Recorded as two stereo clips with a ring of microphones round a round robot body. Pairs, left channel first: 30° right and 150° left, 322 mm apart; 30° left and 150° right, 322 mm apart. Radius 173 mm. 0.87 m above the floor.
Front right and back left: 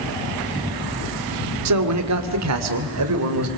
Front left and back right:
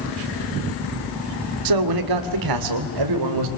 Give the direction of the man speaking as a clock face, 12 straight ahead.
6 o'clock.